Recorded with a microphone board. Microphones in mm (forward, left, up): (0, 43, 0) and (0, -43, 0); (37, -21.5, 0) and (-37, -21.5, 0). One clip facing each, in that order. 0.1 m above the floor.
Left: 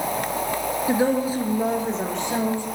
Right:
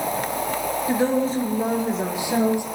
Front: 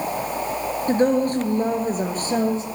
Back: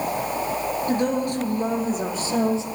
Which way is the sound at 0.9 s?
25° left.